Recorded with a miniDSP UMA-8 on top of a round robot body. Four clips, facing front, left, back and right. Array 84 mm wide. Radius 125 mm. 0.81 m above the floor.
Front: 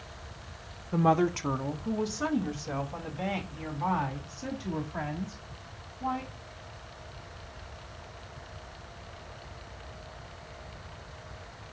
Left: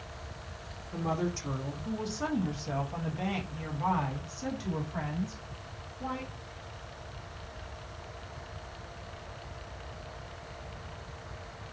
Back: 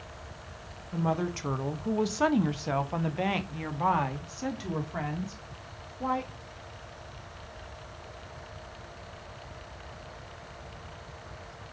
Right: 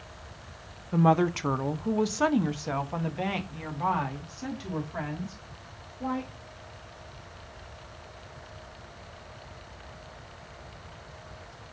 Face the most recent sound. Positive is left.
turn(degrees=-170)